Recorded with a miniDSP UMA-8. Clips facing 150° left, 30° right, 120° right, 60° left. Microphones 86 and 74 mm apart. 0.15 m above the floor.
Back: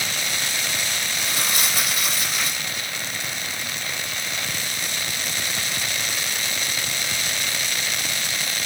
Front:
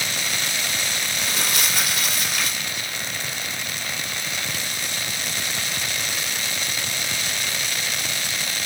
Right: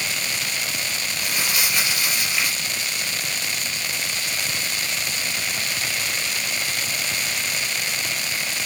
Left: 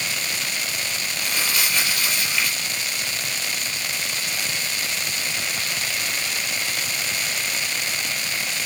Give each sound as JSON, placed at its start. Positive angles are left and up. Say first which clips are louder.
{"t": 1.2, "sound": "crumpling", "louder": "even, even", "azimuth_deg": -40, "distance_m": 4.0}